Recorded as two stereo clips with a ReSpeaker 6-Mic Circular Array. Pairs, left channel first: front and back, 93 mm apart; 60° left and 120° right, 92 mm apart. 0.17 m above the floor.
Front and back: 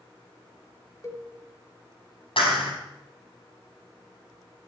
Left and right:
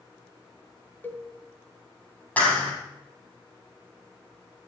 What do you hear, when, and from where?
1.0 s a cowbell: 10° left, 1.6 m
2.4 s a clap: 10° right, 5.5 m